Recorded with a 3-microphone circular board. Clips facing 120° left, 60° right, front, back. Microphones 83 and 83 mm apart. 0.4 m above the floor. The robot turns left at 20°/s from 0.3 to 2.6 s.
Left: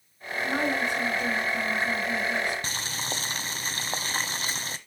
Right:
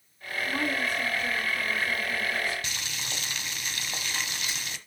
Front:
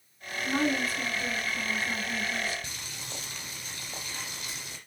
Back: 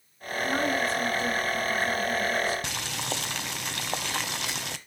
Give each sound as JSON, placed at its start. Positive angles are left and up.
{"t": 0.4, "sound": "a woman speaking", "azimuth_deg": 130, "distance_m": 5.5}
{"t": 2.6, "sound": "boiling", "azimuth_deg": 170, "distance_m": 0.8}